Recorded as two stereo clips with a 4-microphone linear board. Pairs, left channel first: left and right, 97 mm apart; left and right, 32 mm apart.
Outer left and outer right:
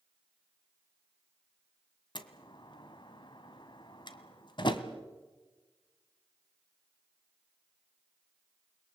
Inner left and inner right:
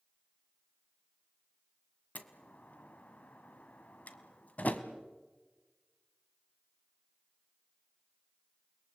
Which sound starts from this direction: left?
A door slam, at 2.1 s.